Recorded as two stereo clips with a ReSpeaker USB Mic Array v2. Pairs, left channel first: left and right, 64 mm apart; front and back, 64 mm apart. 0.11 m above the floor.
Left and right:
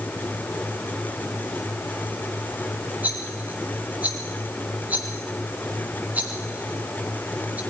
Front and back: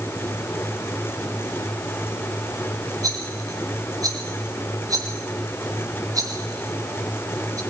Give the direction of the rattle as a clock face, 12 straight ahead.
5 o'clock.